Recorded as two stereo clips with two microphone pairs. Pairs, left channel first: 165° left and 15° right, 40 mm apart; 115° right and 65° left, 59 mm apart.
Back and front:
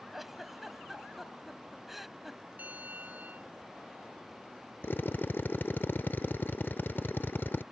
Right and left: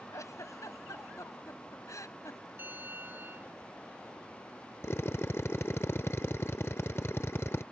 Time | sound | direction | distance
0.1 | a giggle | 95° right | ?
2.6 | a bell | 20° left | ?
4.8 | a drill | 160° right | ?